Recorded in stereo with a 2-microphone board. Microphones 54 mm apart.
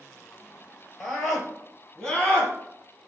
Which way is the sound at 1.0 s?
Centre (ahead or behind).